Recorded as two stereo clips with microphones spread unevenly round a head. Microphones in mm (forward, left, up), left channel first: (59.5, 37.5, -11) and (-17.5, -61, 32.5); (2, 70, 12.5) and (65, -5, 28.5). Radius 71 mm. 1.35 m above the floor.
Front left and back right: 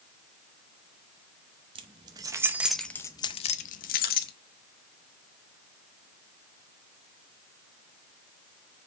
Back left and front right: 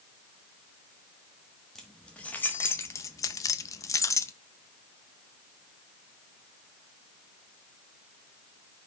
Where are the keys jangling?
135° right, 0.9 m; by 4.3 s 70° left, 0.9 m.